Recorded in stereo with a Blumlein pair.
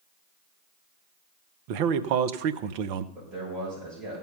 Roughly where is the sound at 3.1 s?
Ahead right.